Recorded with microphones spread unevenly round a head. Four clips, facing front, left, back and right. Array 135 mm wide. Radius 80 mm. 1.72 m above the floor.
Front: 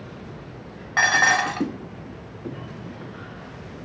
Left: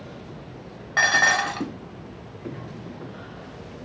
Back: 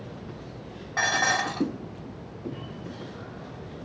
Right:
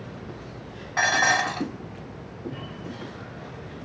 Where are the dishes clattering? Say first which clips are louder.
Left 1 dB, front 6 dB; 10° left, 1.3 m.